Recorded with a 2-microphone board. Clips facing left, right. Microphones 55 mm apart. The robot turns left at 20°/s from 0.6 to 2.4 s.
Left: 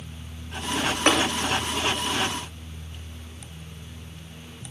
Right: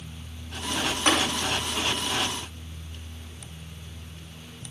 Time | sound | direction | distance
1.1 | tapping | 75° left (ahead or behind) | 3 m